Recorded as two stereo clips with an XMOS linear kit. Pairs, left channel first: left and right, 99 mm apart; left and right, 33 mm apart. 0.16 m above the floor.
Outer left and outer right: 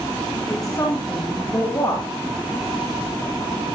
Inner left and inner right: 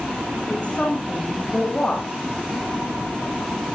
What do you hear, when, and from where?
0.5 s a woman speaking: 35° left (ahead or behind), 9.5 m